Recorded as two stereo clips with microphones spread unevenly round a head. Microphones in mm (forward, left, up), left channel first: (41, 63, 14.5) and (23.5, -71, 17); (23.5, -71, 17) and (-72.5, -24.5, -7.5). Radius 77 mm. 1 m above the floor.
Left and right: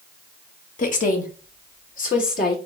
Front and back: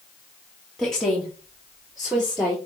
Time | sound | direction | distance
0.8 | a woman speaking | 65° left | 1.5 m